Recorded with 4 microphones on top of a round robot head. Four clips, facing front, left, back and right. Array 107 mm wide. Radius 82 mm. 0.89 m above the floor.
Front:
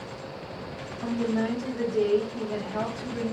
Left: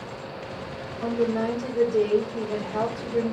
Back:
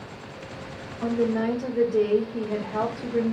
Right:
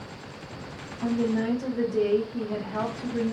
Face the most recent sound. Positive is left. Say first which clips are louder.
# left 1 dB, back 3 dB
turn(degrees=165)